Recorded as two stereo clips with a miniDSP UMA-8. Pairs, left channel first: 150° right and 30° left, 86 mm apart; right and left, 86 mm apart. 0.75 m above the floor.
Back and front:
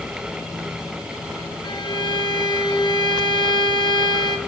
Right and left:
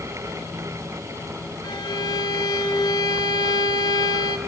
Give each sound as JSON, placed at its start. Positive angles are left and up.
{"t": 1.6, "sound": "a violin", "azimuth_deg": -125, "distance_m": 0.7}